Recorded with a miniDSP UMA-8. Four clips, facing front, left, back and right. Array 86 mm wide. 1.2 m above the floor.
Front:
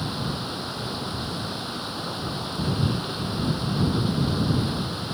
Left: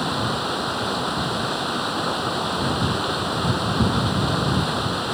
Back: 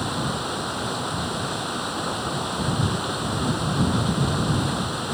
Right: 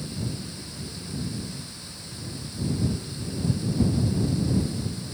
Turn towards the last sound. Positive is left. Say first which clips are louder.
# left 11 dB, back 4 dB
turn(degrees=105)